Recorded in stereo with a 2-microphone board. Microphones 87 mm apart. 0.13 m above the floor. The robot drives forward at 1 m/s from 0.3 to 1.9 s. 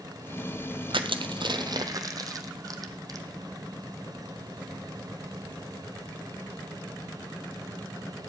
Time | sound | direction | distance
0.9 | crushing | 75° right (ahead or behind) | 0.8 m